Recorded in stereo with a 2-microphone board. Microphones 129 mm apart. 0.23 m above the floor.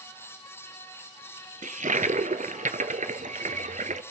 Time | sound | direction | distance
1.6 | a toilet flushing | 75° right (ahead or behind) | 0.9 m